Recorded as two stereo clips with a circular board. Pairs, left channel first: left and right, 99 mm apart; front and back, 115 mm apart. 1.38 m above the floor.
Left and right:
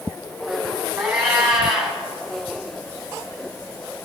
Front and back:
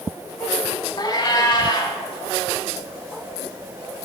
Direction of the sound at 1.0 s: 10° right.